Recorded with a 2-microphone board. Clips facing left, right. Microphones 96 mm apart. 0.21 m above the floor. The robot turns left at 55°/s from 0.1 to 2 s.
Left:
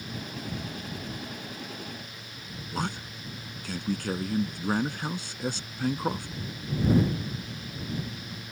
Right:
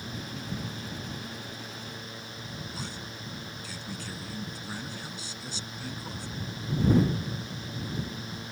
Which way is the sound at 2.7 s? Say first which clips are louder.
Left 6 dB; 60° left (ahead or behind).